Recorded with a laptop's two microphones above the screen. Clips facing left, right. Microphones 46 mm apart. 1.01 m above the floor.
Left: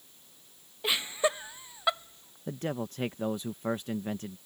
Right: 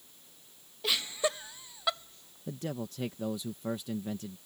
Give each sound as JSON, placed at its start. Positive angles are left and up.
{"t": 0.8, "sound": "laughter", "side_deg": 20}
{"t": 2.5, "sound": "a man speaking", "side_deg": 45}